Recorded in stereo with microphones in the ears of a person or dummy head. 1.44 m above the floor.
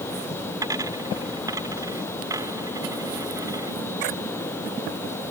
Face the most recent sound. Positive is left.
turn(degrees=-20)  # may be behind; listen again after turning